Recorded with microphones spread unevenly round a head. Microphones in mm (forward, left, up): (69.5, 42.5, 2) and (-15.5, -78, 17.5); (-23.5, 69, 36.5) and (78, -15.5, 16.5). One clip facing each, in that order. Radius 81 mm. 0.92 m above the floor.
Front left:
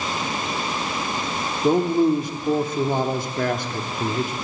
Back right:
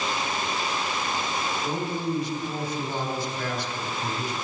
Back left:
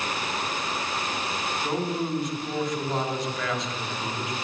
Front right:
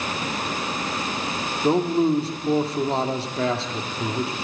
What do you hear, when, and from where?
1.6 s a man speaking: 20° left, 1.8 m